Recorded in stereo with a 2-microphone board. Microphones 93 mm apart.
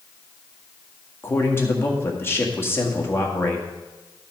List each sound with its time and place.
1.2 s a man speaking: 25° left (ahead or behind), 1.8 m